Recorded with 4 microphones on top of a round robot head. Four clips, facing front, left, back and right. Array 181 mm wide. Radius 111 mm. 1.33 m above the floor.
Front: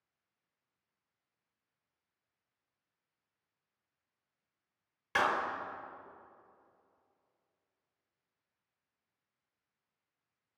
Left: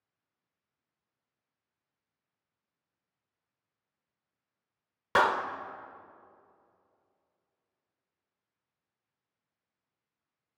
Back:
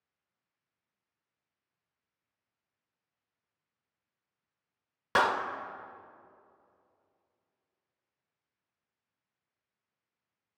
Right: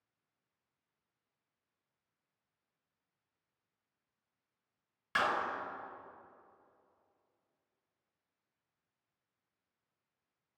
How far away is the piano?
I don't hear a piano.